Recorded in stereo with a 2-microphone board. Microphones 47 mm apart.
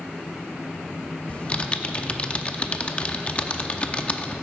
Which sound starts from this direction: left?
Typing on a keyboard, at 1.3 s.